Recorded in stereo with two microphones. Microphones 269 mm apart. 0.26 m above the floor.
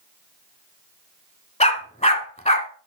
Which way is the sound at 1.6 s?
25° left (ahead or behind).